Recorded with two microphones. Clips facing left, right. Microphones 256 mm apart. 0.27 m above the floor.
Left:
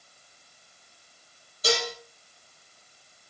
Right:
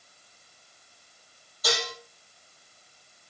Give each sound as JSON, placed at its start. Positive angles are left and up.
{"t": 1.6, "sound": "dishes clattering", "side_deg": 30, "distance_m": 5.5}